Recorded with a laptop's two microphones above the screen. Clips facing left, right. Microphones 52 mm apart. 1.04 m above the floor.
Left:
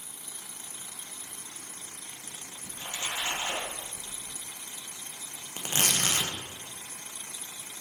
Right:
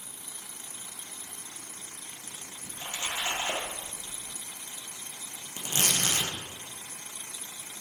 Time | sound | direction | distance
2.6 | a splash | 25° right (ahead or behind) | 1.2 m
5.6 | tearing paper | 40° left (ahead or behind) | 0.9 m